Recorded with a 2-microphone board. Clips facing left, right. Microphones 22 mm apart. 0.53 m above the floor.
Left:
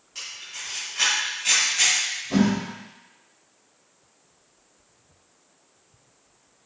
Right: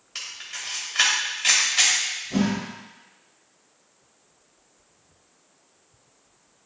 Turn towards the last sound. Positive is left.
turn(degrees=50)  # may be behind; listen again after turning